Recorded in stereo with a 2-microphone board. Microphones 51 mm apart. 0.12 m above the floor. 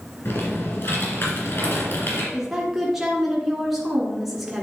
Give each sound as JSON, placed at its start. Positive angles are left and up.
{"t": 0.2, "sound": "typing on a keyboard", "side_deg": 55, "distance_m": 3.0}
{"t": 2.3, "sound": "a woman speaking", "side_deg": -5, "distance_m": 1.4}